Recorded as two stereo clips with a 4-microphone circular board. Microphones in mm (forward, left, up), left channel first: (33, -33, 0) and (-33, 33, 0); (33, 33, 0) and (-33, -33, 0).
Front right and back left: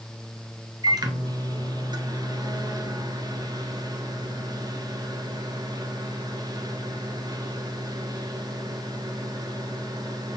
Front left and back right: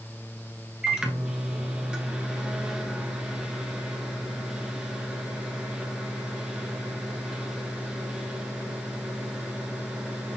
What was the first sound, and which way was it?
A microwave, 145° left.